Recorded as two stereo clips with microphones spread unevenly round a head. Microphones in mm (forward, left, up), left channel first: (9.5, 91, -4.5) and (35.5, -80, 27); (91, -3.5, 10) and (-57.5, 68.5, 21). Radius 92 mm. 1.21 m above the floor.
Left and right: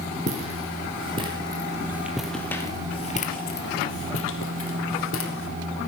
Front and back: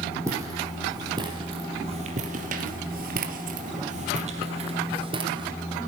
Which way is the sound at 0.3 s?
130° right.